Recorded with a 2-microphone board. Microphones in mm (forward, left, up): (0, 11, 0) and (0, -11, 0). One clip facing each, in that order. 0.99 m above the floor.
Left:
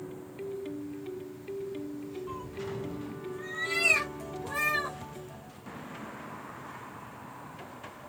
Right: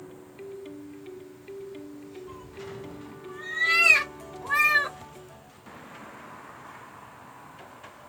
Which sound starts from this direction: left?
A cat meowing, at 2.3 s.